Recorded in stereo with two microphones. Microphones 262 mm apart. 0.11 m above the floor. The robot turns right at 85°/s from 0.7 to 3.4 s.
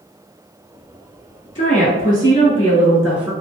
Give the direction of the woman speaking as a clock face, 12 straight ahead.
10 o'clock.